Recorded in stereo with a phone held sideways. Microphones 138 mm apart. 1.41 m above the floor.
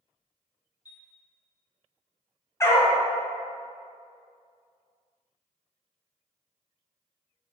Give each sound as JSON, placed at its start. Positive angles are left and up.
{"t": 0.8, "sound": "a chime", "side_deg": 25, "distance_m": 1.0}
{"t": 2.6, "sound": "a dog barking", "side_deg": 20, "distance_m": 1.1}